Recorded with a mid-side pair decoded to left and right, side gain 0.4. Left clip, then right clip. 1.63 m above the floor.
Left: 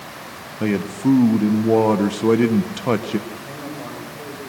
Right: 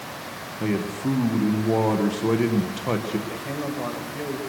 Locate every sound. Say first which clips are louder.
0.6 s a man speaking: left 5 dB; 45° left, 1.4 m
3.3 s a man speaking: right 2 dB; 40° right, 6.5 m